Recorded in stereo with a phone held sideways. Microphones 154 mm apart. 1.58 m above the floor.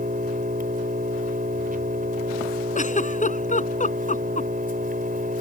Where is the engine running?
65° right (ahead or behind).